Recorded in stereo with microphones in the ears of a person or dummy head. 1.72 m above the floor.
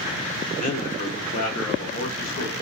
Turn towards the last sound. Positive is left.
turn(degrees=60)  # may be behind; listen again after turning